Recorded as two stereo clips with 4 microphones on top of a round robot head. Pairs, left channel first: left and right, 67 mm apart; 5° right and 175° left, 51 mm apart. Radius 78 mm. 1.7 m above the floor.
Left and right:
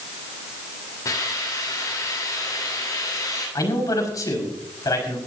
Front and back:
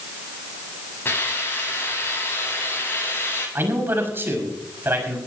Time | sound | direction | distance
1.1 | a hiss | 45° left | 9.5 m
3.5 | a man speaking | 125° left | 5.5 m